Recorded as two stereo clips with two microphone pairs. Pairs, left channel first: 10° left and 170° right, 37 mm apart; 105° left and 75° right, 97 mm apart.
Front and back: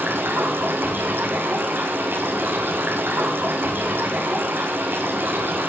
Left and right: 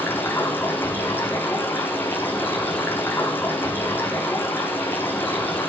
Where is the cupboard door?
No cupboard door in this recording.